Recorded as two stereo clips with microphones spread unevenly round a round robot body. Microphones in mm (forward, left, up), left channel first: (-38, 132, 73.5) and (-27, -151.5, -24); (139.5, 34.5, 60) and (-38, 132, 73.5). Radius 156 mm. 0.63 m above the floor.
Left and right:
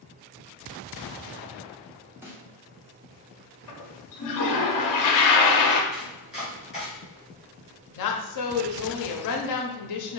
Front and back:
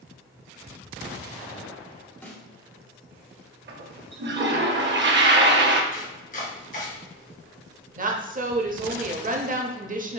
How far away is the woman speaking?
About 0.7 m.